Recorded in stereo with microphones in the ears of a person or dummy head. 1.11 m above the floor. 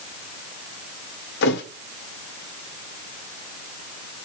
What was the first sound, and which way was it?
A thud, 65° left (ahead or behind).